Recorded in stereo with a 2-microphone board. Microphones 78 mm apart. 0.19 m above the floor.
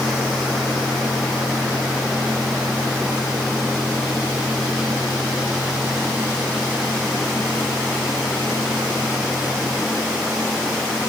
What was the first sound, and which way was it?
Only background noise.